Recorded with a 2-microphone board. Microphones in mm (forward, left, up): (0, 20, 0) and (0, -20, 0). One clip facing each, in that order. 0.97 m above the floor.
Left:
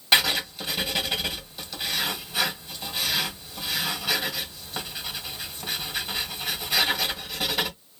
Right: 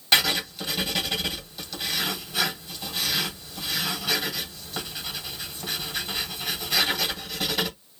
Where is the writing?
10° left (ahead or behind), 1.7 m.